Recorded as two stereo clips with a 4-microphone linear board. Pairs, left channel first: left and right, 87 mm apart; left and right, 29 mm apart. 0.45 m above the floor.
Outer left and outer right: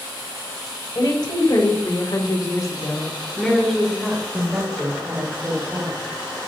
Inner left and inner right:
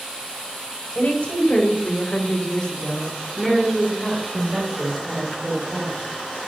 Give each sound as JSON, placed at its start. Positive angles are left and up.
{"t": 0.9, "sound": "a woman speaking", "side_deg": 55, "distance_m": 1.9}